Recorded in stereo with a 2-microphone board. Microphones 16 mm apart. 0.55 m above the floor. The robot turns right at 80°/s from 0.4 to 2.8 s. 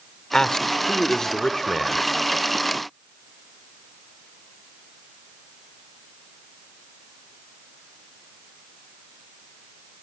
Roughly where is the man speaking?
Ahead left.